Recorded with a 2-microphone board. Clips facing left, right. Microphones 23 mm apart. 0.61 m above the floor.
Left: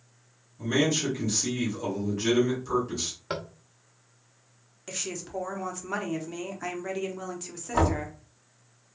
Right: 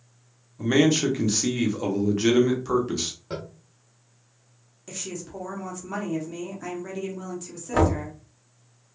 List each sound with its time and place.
0.6 s a man speaking: 40° right (ahead or behind), 1.0 m
3.3 s tapping: 55° left (ahead or behind), 0.6 m
4.9 s a woman speaking: 20° left (ahead or behind), 0.9 m
7.7 s knocking: 65° right (ahead or behind), 1.8 m